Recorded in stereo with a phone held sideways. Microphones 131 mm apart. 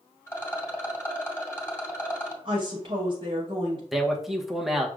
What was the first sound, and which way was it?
A rattle, 20° left (ahead or behind).